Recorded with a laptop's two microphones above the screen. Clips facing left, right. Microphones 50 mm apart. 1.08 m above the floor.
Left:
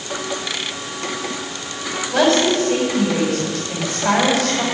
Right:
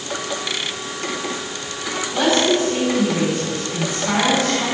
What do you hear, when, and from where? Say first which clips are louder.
2.1 s a woman speaking: left 2 dB; 70° left (ahead or behind), 5.5 m